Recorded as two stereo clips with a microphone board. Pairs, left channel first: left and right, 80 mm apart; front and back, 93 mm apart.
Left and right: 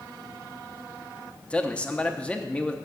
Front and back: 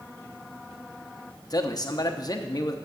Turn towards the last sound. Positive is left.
turn(degrees=20)